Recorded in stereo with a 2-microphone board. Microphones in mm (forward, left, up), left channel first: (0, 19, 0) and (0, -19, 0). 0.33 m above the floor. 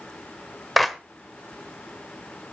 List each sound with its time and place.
0.8 s a clap: centre (ahead or behind), 1.1 m